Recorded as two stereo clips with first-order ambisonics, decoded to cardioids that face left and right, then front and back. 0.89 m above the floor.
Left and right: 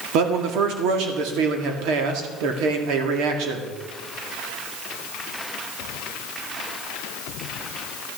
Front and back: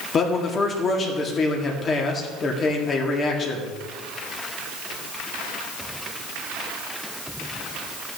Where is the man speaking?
65° right, 1.7 m.